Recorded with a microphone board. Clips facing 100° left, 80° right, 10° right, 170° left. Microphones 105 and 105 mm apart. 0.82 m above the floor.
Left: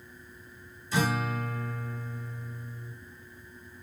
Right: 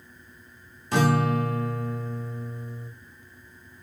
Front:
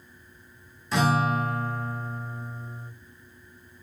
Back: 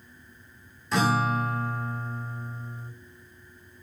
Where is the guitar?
100° right, 0.8 m.